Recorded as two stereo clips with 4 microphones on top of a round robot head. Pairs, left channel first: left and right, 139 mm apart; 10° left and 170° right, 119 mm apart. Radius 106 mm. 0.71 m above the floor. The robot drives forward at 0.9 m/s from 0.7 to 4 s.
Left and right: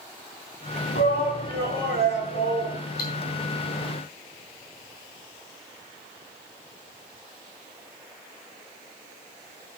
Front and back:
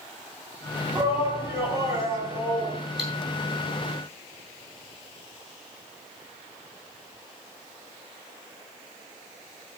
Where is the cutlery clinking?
100° left, 7.5 m.